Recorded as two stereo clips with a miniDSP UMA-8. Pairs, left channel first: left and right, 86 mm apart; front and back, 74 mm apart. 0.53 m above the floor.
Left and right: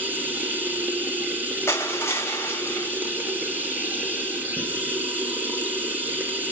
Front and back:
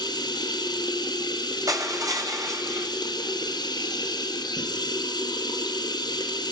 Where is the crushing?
150° left, 2.5 m.